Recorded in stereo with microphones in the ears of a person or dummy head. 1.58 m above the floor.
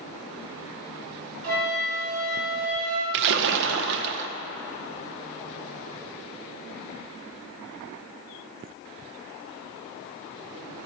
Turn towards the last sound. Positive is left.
turn(degrees=-60)  # may be behind; listen again after turning